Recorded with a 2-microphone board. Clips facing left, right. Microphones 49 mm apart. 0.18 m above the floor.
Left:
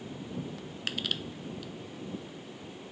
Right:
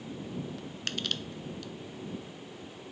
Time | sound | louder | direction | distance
0.9 | crushing | left 1 dB | 5° left (ahead or behind) | ?